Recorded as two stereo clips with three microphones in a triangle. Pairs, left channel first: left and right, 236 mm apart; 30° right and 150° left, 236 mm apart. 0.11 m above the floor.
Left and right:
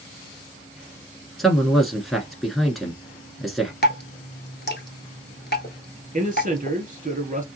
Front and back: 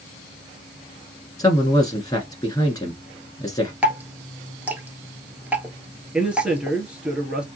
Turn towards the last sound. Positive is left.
turn(degrees=-125)